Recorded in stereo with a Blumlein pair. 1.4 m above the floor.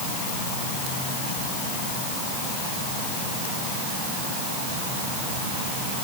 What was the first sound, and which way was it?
Only background noise.